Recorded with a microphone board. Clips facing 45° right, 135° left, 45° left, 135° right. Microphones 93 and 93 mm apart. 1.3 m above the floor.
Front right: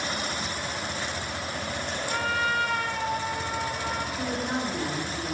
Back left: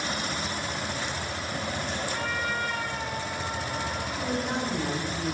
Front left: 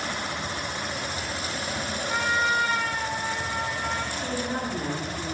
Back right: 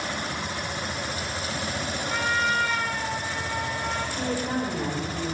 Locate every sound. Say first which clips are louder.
2.1 s a trumpet: front right 8 dB, front left 1 dB; 35° right, 1.8 m
4.2 s a woman speaking: back left 3 dB, back right 2 dB; 125° right, 4.5 m